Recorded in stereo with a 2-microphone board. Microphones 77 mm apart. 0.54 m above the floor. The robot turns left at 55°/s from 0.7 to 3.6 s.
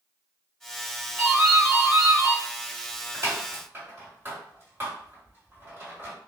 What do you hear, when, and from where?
1.2 s a doorbell: 5° right (ahead or behind), 2.0 m; by 6.2 s 30° right (ahead or behind), 2.0 m